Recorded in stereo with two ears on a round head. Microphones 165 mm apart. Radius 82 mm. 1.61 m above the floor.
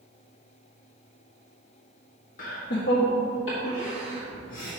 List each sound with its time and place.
2.4 s laughter: 45° left (ahead or behind), 0.6 m; by 4.7 s 85° left, 1.7 m